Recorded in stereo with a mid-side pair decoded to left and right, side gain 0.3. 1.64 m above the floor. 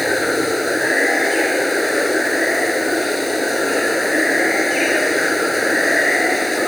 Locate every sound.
0.0 s running water: 15° left